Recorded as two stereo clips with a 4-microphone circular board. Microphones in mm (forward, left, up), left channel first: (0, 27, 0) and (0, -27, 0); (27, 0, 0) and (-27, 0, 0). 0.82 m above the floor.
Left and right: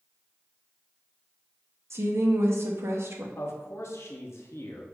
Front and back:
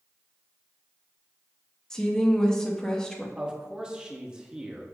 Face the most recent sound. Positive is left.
turn(degrees=105)